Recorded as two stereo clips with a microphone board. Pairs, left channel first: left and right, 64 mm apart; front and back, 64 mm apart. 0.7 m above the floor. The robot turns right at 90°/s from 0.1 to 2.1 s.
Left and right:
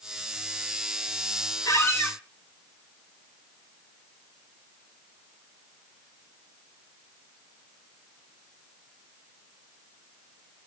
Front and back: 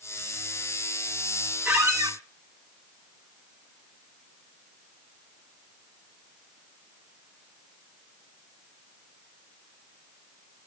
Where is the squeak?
115° left, 1.6 m; by 2.2 s 155° left, 1.6 m.